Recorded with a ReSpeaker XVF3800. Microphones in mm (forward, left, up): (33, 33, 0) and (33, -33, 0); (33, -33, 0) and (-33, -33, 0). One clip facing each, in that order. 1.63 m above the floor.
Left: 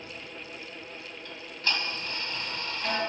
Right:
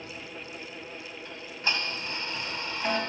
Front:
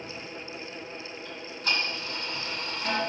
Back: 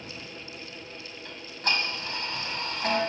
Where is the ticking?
160° right, 3 m.